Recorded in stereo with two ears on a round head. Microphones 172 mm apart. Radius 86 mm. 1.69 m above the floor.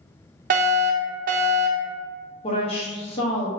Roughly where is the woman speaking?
Left.